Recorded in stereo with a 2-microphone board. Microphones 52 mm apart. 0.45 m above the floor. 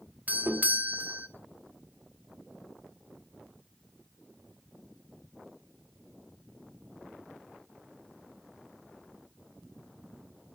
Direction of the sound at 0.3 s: 30° right (ahead or behind).